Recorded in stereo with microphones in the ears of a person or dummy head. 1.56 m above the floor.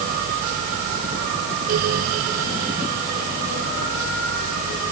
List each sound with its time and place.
Only background noise.